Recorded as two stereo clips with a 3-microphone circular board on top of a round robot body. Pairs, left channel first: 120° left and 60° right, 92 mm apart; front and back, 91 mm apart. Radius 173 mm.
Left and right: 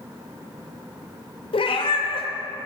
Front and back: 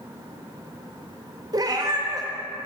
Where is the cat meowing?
135° left, 0.8 m.